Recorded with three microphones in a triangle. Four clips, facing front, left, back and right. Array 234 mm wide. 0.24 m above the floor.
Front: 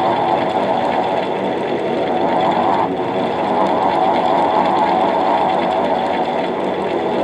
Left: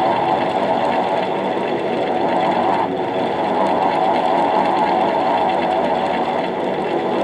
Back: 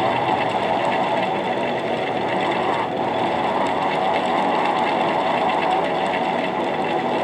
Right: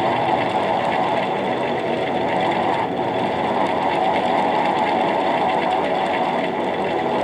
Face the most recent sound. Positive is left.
No sound to turn to.